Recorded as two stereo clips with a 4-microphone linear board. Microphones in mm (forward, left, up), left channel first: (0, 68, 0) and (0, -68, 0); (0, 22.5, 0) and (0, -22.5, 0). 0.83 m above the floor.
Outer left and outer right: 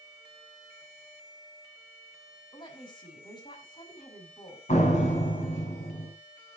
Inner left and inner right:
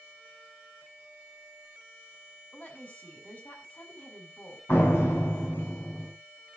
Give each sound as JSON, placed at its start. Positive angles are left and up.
{"t": 2.5, "sound": "a woman speaking", "side_deg": 35, "distance_m": 6.5}
{"t": 4.7, "sound": "a door slam", "side_deg": 60, "distance_m": 6.5}